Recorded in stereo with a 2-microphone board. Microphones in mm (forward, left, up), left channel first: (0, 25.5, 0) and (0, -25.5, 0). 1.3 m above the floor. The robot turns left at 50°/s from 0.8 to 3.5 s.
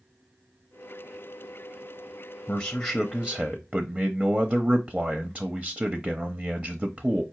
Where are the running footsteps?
No running footsteps in this recording.